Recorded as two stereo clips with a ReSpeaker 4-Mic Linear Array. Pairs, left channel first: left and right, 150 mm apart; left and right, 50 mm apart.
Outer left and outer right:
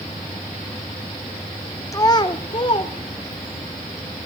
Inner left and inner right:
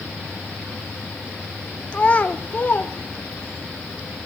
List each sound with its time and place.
1.9 s a child speaking: 20° left (ahead or behind), 0.5 m; by 3.6 s 35° left (ahead or behind), 1.2 m